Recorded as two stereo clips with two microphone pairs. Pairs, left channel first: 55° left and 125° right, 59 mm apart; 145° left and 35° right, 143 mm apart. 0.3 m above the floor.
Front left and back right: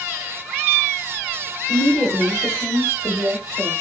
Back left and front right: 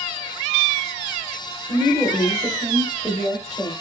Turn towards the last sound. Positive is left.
turn(degrees=60)